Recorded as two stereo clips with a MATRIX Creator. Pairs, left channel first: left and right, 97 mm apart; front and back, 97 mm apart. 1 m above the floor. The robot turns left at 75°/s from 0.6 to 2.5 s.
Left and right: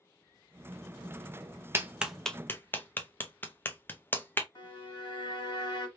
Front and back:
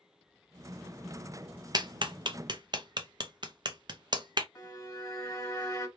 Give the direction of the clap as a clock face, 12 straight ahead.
5 o'clock.